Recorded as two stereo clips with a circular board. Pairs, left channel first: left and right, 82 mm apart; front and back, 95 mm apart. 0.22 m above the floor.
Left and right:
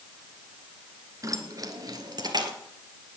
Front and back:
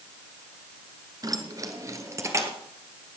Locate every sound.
1.2 s keys jangling: 135° right, 1.7 m; by 2.5 s 120° right, 2.5 m